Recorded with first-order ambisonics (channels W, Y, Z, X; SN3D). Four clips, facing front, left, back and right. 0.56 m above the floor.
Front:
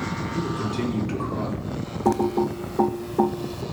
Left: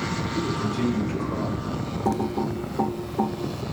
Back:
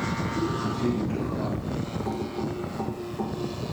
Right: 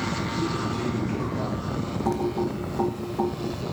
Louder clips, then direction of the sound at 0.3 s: Left 1 dB, front 3 dB; 10° left.